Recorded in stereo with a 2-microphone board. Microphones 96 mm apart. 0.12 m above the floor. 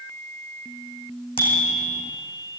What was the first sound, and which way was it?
A bicycle bell, 70° left (ahead or behind).